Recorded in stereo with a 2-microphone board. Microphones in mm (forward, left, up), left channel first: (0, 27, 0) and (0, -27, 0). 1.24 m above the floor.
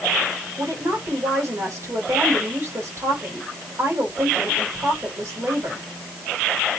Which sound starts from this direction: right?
A woman speaking, at 0.6 s.